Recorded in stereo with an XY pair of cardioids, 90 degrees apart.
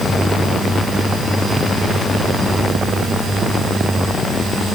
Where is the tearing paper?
No tearing paper in this recording.